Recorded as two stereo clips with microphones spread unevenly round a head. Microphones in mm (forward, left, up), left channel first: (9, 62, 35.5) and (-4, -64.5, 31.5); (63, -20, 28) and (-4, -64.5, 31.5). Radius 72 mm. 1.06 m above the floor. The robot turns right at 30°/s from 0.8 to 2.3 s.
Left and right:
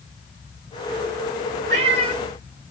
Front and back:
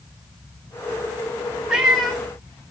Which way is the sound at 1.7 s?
65° right.